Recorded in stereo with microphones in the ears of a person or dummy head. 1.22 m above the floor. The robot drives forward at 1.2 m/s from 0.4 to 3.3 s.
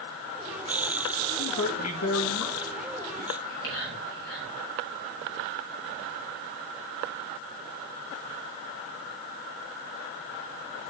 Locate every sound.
1.4 s a man speaking: 70° left (ahead or behind), 1.4 m; by 3.2 s 35° left (ahead or behind), 2 m
3.3 s whispering: 90° left, 6 m